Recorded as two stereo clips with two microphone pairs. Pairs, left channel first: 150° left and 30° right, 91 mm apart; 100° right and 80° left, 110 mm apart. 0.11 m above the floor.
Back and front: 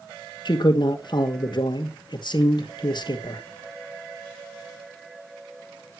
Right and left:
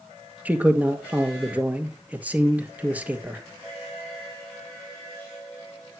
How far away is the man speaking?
About 2.0 m.